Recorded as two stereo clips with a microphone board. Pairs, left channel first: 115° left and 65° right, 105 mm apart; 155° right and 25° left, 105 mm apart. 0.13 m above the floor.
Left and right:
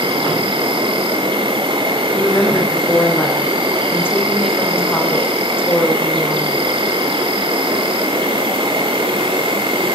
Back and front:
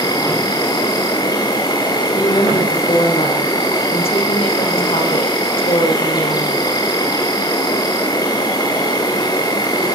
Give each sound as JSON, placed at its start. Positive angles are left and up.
{"t": 0.0, "sound": "an insect", "azimuth_deg": -105, "distance_m": 3.0}
{"t": 2.1, "sound": "a woman speaking", "azimuth_deg": 180, "distance_m": 5.5}